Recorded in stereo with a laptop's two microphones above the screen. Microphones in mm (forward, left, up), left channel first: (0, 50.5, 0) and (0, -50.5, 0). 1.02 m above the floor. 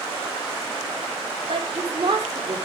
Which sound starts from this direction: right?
A woman speaking, at 1.5 s.